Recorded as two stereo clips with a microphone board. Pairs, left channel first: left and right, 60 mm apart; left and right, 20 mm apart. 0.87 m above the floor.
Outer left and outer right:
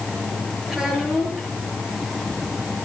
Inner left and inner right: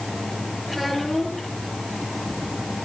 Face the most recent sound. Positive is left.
turn(degrees=-10)  # may be behind; listen again after turning